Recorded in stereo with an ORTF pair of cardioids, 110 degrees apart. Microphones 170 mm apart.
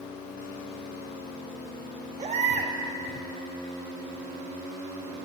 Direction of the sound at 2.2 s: 40° right.